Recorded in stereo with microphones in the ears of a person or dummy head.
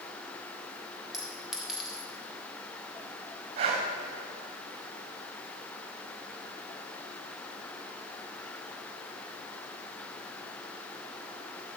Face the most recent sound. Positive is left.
turn(degrees=-40)  # may be behind; listen again after turning